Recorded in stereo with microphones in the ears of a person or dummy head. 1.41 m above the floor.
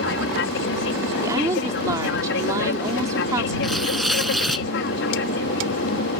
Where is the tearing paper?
5° right (ahead or behind).